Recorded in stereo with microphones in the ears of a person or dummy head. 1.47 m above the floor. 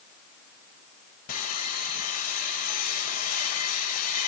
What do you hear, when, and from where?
1.3 s sawing: 50° left (ahead or behind), 3 m